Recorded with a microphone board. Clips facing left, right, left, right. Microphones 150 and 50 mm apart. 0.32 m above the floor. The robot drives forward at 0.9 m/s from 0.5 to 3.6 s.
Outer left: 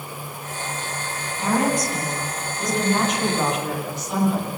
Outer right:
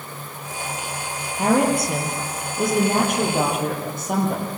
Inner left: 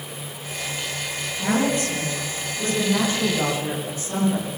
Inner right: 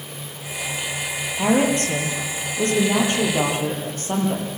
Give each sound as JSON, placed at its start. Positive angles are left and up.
{"t": 1.4, "sound": "a woman speaking", "side_deg": -60, "distance_m": 8.0}